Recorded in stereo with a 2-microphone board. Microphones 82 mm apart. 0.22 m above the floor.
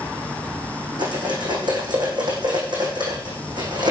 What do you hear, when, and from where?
1.0 s cutlery clinking: 65° right (ahead or behind), 7.5 m